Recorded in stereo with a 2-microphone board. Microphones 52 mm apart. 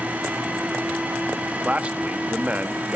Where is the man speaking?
25° right (ahead or behind), 0.9 m.